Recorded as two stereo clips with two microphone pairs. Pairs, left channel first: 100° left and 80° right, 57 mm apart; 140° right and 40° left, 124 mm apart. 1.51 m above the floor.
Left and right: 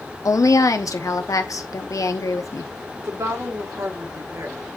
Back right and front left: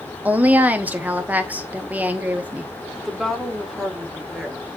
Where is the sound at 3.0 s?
50° right, 1.5 m.